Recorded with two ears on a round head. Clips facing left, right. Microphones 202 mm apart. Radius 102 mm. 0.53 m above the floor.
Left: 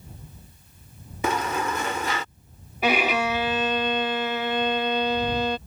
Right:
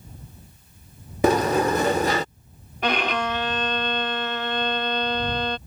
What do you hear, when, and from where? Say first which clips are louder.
1.2 s a sliding door: right 8 dB; 30° right (ahead or behind)
2.8 s a violin: left 2 dB; 5° left (ahead or behind)